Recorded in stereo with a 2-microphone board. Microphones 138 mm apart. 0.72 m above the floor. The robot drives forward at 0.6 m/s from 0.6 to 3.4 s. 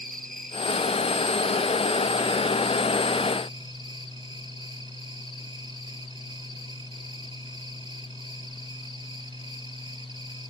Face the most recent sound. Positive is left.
turn(degrees=-35)  # may be behind; listen again after turning